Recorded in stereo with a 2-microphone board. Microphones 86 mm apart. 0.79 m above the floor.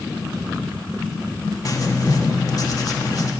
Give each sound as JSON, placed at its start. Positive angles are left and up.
{"t": 1.6, "sound": "writing", "side_deg": 45, "distance_m": 1.2}